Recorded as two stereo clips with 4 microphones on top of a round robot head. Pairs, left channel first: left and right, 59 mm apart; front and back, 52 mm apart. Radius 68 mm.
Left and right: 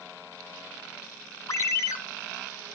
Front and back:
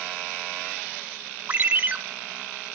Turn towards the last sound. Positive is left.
turn(degrees=125)